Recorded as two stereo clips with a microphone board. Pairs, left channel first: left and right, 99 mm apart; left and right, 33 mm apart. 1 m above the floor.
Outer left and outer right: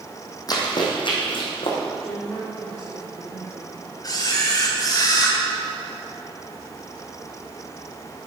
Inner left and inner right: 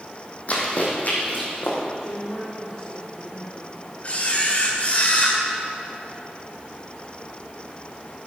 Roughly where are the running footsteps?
Left.